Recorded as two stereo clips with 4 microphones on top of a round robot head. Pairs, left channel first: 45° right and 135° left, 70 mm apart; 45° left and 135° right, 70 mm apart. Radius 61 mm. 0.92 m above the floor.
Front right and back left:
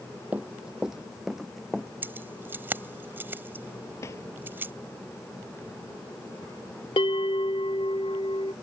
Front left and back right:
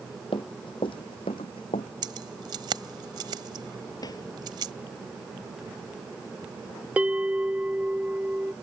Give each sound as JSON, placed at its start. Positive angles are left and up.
{"t": 0.3, "sound": "running footsteps", "azimuth_deg": 60}
{"t": 2.0, "sound": "keys jangling", "azimuth_deg": -165}
{"t": 4.0, "sound": "a drawer", "azimuth_deg": 5}
{"t": 7.0, "sound": "a bell", "azimuth_deg": -60}